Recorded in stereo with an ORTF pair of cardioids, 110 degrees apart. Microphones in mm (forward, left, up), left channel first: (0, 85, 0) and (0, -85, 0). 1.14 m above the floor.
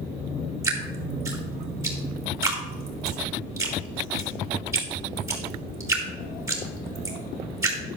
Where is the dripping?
15° right, 4.5 m.